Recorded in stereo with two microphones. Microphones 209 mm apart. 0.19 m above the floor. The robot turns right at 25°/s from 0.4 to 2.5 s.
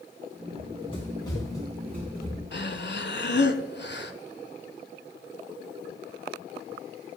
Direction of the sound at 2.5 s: 55° left (ahead or behind).